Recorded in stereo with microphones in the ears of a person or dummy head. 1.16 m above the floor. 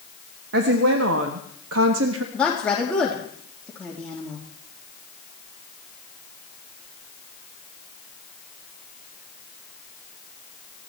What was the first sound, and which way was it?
A woman speaking, 65° right (ahead or behind).